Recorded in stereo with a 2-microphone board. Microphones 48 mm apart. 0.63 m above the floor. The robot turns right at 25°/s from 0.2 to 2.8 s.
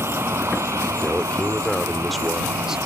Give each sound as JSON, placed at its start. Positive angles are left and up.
{"t": 0.0, "sound": "a vehicle", "azimuth_deg": -125}
{"t": 1.0, "sound": "a man speaking", "azimuth_deg": 150}